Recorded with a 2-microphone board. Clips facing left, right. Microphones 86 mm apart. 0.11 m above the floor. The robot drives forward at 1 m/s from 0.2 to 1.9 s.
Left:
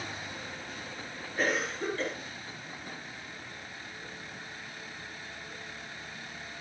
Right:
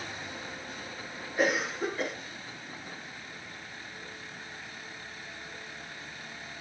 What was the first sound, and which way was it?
A cough, 10° right (ahead or behind).